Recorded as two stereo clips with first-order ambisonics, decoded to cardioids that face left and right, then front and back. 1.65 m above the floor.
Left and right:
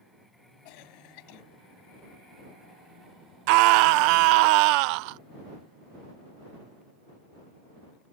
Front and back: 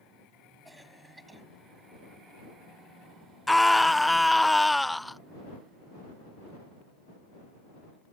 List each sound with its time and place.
0.7 s a cough: 95° left
3.5 s a scream: 85° right